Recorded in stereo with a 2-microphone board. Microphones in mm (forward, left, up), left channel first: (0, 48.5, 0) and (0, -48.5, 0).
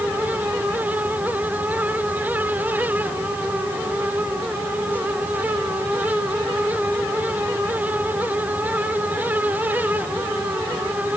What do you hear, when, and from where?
Only background noise.